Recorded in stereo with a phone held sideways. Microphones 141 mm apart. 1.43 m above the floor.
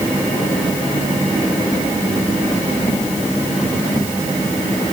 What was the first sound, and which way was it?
Only background noise.